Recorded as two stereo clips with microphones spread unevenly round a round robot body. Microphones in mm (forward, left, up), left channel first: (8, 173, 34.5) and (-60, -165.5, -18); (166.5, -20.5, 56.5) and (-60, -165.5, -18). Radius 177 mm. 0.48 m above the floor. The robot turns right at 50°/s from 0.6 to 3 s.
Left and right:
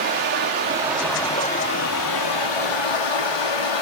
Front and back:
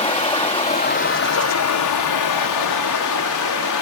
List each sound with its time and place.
0.0 s running water: 35° right, 6 m; by 3.8 s 85° left, 6 m